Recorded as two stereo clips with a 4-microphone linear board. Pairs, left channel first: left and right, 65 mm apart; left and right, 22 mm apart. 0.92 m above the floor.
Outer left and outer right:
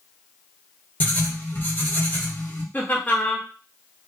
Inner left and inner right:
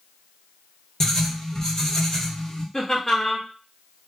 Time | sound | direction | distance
1.0 | writing | 30° left (ahead or behind) | 0.8 m
2.7 | laughter | 30° left (ahead or behind) | 0.9 m